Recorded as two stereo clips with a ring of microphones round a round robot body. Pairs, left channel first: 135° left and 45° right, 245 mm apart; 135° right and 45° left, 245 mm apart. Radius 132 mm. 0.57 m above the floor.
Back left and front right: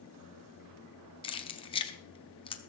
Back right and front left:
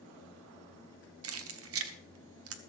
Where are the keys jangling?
65° left, 1.0 m.